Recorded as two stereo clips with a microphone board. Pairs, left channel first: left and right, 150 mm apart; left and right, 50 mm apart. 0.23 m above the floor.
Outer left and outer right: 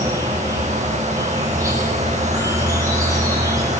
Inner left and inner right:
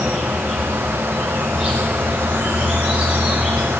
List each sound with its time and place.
0.0 s an insect: 20° right (ahead or behind), 7.5 m